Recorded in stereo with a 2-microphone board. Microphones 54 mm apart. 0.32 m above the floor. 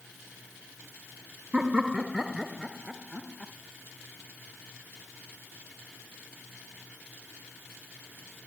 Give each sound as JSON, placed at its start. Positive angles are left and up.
{"t": 1.5, "sound": "laughter", "side_deg": -20}